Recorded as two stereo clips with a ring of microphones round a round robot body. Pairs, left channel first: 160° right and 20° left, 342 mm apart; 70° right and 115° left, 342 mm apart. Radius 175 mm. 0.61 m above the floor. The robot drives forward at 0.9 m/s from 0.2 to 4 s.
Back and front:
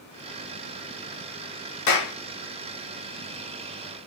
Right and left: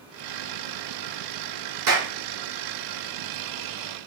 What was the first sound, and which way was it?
A clap, 160° left.